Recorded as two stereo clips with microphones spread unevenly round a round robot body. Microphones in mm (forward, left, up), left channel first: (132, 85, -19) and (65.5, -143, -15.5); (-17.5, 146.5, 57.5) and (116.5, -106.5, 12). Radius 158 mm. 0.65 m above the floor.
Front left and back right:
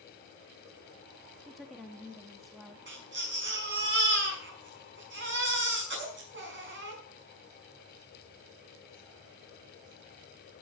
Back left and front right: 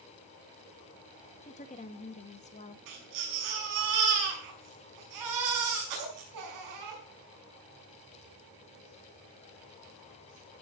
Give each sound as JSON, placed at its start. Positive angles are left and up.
{"t": 1.4, "sound": "a woman speaking", "azimuth_deg": 165, "distance_m": 0.8}
{"t": 2.9, "sound": "a baby crying", "azimuth_deg": -65, "distance_m": 5.5}